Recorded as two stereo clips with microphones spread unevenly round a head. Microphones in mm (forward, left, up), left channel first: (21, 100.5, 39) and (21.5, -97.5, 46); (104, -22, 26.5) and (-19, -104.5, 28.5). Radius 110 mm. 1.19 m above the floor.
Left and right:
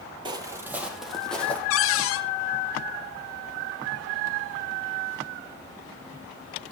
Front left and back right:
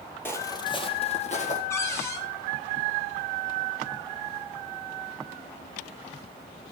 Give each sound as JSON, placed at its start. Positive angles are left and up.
{"t": 0.2, "sound": "footsteps", "azimuth_deg": -35, "distance_m": 1.5}
{"t": 1.7, "sound": "a cupboard door", "azimuth_deg": 110, "distance_m": 0.8}